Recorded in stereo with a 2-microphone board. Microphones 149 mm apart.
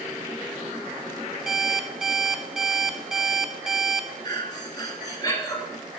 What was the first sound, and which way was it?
An alarm clock, 5° right (ahead or behind).